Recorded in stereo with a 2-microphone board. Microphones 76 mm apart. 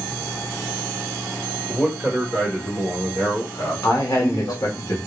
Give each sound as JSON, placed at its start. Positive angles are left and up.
{"t": 1.7, "sound": "a man speaking", "side_deg": 5, "distance_m": 1.6}
{"t": 3.8, "sound": "a man speaking", "side_deg": 50, "distance_m": 1.7}